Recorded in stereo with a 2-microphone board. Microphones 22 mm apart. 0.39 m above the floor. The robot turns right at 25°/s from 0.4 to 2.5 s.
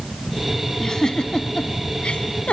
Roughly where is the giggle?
Left.